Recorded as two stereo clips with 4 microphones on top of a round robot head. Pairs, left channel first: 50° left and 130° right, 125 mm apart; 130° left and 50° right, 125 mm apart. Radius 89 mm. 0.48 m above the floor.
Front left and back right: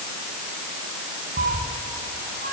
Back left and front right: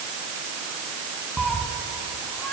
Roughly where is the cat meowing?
Behind right.